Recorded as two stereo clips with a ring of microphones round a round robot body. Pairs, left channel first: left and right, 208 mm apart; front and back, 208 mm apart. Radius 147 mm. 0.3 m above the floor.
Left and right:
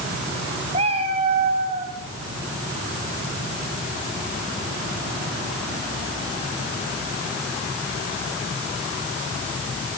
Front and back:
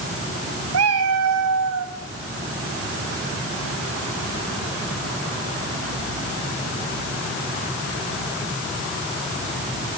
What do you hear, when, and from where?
0.7 s a cat meowing: 160° right, 4 m